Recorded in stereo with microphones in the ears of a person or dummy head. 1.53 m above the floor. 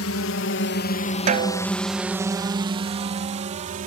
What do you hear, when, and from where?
0.0 s a drone: 70° left (ahead or behind); by 3.9 s 45° right (ahead or behind)
1.3 s a snare drum: 40° right (ahead or behind)